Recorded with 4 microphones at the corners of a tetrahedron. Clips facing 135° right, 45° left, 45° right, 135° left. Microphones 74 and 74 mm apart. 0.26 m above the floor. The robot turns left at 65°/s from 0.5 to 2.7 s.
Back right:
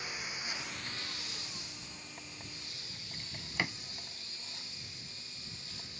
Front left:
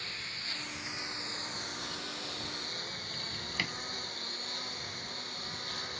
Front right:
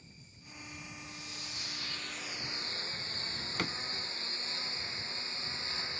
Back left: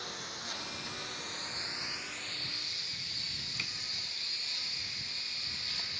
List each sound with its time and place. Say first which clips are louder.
0.0 s a lawn mower: back right 2 dB, back left 15 dB; 150° left; by 6.0 s 20° left
3.1 s a drawer: back right 2 dB, front right 7 dB; 70° right